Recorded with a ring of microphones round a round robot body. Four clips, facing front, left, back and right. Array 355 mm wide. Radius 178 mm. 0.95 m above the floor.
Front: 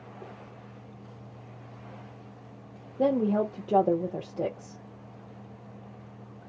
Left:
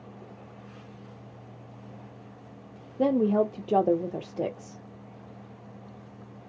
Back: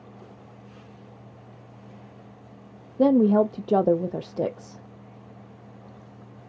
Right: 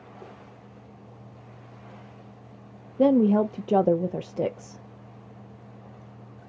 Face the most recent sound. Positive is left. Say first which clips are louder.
# right 4 dB, back 7 dB
turn(degrees=-145)